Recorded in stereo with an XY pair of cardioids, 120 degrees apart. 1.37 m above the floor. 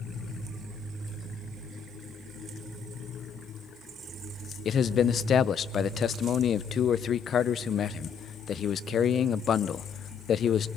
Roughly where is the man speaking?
Ahead left.